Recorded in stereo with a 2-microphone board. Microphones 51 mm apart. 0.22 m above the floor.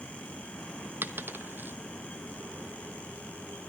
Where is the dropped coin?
40° right (ahead or behind), 0.6 m.